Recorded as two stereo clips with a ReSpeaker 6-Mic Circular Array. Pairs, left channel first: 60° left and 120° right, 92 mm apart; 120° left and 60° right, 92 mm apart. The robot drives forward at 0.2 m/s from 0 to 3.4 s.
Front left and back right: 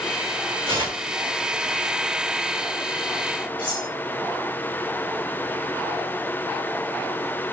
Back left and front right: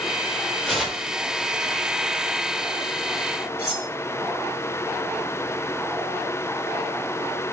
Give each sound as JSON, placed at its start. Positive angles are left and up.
{"t": 0.7, "sound": "tearing paper", "azimuth_deg": -145, "distance_m": 5.0}
{"t": 3.6, "sound": "cutlery clinking", "azimuth_deg": -145, "distance_m": 5.0}